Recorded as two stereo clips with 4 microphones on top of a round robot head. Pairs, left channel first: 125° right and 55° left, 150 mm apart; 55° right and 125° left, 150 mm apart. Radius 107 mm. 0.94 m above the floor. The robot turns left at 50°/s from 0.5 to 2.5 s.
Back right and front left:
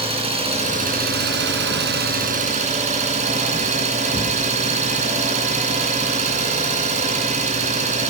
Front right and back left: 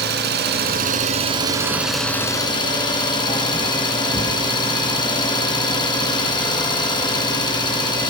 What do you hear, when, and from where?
0.0 s an engine running: 110° left, 3 m; by 8.1 s 10° left, 3 m